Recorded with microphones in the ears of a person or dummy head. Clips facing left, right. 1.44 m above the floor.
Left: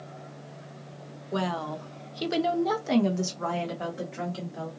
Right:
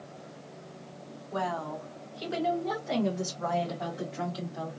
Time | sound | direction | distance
1.3 | a woman speaking | 45° left (ahead or behind) | 0.9 m